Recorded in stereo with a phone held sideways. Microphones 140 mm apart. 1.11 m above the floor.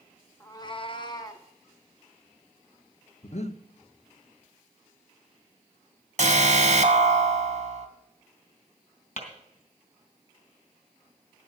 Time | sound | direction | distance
0.4 | a cat meowing | 15° left (ahead or behind) | 0.7 m
3.2 | breathing | 55° left (ahead or behind) | 0.8 m
6.2 | an alarm | 50° right (ahead or behind) | 1.3 m
9.2 | tapping | 55° left (ahead or behind) | 3 m